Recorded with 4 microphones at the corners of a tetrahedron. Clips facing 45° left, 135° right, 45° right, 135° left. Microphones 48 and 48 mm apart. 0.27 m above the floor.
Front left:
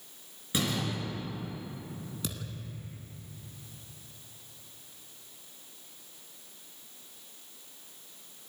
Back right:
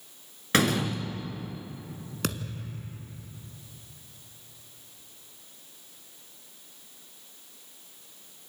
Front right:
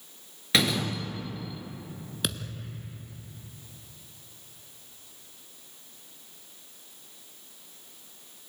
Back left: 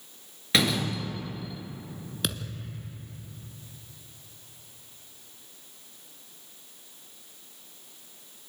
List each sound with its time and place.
0.5 s a door slam: 135° right, 3 m
2.2 s a thud: 135° right, 1.7 m